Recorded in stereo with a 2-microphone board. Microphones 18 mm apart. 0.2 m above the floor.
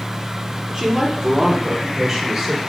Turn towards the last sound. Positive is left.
turn(degrees=-15)  # may be behind; listen again after turning